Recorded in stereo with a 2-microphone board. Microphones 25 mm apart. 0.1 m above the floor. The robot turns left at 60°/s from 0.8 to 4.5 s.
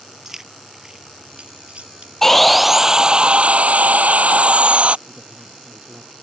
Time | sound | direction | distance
0.2 | keys jangling | 15° right (ahead or behind) | ?
2.2 | sawing | 15° left | ?
5.1 | a woman speaking | 55° right (ahead or behind) | ?